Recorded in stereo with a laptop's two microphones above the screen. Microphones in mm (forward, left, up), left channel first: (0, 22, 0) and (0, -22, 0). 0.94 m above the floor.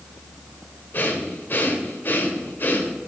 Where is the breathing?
50° left (ahead or behind), 1.6 m.